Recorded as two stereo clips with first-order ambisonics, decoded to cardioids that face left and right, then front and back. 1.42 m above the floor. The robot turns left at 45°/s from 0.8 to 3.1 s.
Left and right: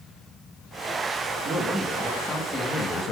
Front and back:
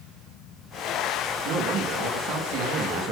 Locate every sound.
1.4 s a man speaking: 155° right, 1.5 m; by 3.1 s 135° left, 1.5 m